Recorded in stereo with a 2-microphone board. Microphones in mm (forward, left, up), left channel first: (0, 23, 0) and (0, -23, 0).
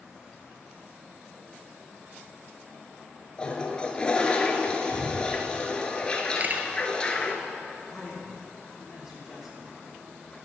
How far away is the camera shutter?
About 1.1 m.